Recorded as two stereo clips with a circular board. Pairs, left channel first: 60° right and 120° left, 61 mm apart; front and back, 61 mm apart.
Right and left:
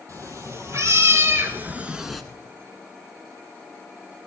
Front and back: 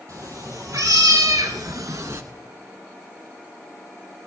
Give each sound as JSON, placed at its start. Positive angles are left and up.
{"t": 0.1, "sound": "a cat meowing", "azimuth_deg": 150, "distance_m": 2.5}